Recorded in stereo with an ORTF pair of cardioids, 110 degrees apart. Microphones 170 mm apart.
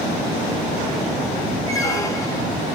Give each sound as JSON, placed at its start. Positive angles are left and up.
{"t": 1.7, "sound": "a squeak", "azimuth_deg": 20, "distance_m": 1.4}